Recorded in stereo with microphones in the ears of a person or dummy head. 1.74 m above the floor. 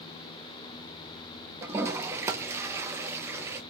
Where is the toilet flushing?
15° right (ahead or behind), 0.5 m.